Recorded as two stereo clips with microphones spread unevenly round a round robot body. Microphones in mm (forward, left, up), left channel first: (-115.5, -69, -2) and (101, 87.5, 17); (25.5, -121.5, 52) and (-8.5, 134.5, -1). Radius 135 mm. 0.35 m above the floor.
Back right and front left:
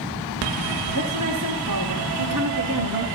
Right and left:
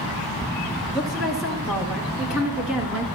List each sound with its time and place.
0.9 s a woman speaking: 10° left, 6.5 m; by 3.0 s 15° left, 4.5 m